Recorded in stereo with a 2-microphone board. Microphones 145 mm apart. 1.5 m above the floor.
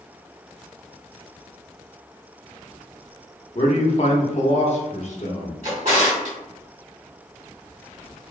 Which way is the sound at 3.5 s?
50° left (ahead or behind).